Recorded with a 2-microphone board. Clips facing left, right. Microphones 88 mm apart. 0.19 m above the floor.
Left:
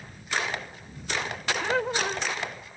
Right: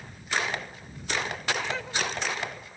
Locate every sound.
1.6 s laughter: 50° left (ahead or behind)